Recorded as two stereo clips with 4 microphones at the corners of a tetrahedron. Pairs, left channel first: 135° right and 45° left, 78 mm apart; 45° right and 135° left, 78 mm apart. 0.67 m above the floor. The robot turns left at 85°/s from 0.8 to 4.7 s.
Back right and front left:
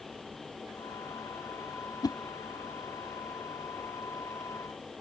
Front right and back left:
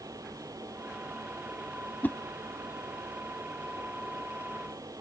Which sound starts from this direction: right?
A whoosh, at 2.0 s.